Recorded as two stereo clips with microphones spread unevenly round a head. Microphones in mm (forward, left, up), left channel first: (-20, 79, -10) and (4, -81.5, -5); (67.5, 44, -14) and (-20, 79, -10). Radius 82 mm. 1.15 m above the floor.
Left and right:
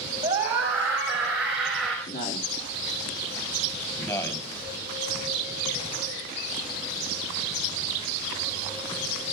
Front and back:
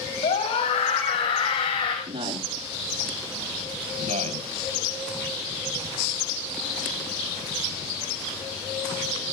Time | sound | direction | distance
0.2 | a scream | 10° right | 5.5 m
2.1 | a man speaking | 135° left | 2 m
4.0 | a man speaking | 170° left | 4 m